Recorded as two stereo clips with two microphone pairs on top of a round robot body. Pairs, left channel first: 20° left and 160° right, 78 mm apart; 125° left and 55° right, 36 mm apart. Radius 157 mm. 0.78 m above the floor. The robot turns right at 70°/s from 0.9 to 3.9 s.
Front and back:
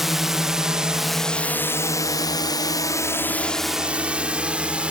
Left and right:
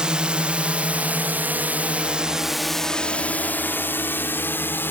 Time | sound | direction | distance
0.0 | a drone | 70° right | ?